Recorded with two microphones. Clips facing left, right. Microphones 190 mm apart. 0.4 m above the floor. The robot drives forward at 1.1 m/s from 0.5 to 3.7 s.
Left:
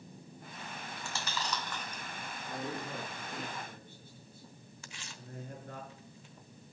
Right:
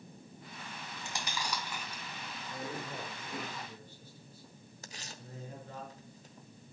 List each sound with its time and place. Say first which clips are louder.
1.0 s chewing: even; 20° right (ahead or behind), 0.7 m; by 3.5 s 5° right (ahead or behind), 3.5 m
2.5 s a man speaking: left 2 dB; 65° left (ahead or behind), 6 m; by 5.8 s 55° left (ahead or behind), 7 m
4.8 s tearing paper: right 2 dB; 40° right (ahead or behind), 1.0 m